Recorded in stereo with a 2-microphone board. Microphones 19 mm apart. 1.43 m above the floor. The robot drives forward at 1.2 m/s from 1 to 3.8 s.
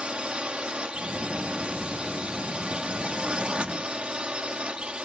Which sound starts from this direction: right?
A drone, at 0.0 s.